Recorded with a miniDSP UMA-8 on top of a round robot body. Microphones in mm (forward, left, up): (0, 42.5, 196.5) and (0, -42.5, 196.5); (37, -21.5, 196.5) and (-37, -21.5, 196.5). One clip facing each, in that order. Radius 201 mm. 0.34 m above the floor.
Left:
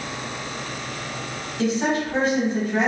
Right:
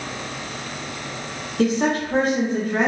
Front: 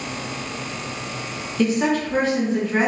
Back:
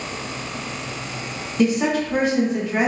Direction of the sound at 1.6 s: 110° right.